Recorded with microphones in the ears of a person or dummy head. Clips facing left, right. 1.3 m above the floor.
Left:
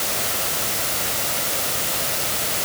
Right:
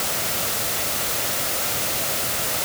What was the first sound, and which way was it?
Only background noise.